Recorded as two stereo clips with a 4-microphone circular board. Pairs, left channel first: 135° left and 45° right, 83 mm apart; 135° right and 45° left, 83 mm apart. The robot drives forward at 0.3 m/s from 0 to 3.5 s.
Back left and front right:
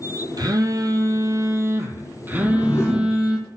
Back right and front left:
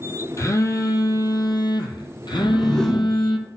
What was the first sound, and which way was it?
A phone buzzing, 85° right.